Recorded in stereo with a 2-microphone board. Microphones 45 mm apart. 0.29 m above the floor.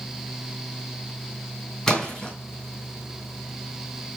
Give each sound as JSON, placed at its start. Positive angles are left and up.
{"t": 1.9, "sound": "a splash", "side_deg": 10, "distance_m": 4.0}